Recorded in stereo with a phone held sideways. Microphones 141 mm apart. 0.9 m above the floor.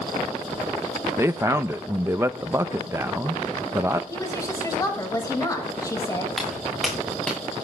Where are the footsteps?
Centre (ahead or behind), 5.5 m; by 7.4 s 5° left (ahead or behind), 6 m.